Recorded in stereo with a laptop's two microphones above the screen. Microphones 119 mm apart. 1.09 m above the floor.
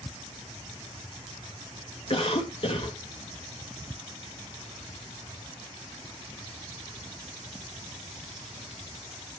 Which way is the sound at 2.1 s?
50° left (ahead or behind).